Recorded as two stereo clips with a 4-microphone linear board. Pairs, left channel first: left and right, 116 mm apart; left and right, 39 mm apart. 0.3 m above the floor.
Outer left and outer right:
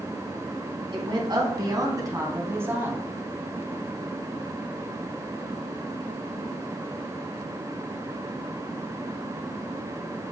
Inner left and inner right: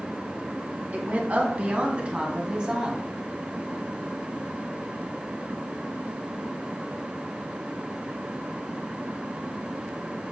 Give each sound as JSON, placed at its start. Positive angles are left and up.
{"t": 0.9, "sound": "a woman speaking", "side_deg": -40, "distance_m": 3.0}